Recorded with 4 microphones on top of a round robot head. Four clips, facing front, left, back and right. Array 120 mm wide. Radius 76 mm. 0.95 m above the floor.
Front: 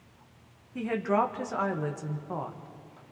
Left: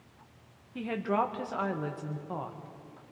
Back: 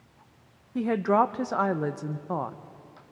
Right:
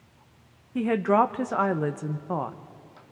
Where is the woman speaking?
130° right, 0.9 m.